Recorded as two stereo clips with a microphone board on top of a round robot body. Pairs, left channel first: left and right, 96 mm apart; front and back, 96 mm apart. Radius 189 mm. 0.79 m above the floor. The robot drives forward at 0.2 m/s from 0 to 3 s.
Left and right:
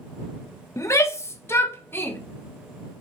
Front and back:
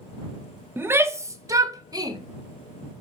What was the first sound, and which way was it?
A shout, 125° left.